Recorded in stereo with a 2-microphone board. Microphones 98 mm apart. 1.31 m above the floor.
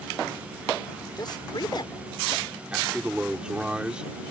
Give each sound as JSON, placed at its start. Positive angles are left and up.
{"t": 1.2, "sound": "a man speaking", "side_deg": 45}
{"t": 2.7, "sound": "a man speaking", "side_deg": -10}